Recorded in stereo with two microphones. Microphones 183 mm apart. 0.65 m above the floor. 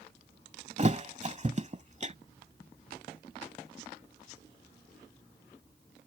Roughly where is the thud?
Right.